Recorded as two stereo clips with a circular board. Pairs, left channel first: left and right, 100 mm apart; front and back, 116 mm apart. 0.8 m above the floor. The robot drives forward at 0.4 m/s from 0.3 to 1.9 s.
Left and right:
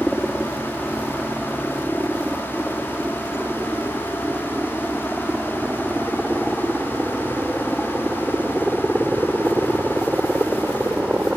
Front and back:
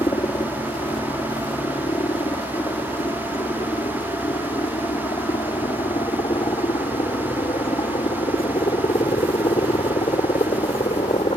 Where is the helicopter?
5° right; by 11.4 s 15° right.